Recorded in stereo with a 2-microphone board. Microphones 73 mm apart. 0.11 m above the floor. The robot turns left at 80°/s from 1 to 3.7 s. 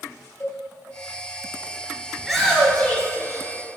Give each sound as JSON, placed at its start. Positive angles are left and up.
{"t": 0.4, "sound": "a cowbell", "side_deg": 30, "distance_m": 1.7}
{"t": 2.2, "sound": "a shout", "azimuth_deg": -165, "distance_m": 1.5}